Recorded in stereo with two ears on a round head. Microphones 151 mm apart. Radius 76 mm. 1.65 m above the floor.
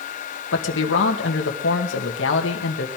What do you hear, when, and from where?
0.5 s a man speaking: 85° left, 2.0 m